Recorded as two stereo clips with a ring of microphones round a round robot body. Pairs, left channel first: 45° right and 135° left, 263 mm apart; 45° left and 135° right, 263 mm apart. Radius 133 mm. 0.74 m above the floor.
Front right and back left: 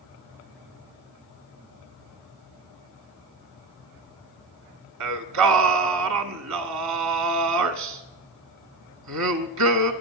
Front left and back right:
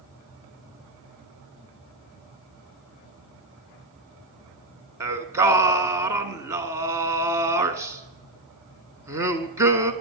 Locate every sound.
5.0 s singing: 145° left, 1.1 m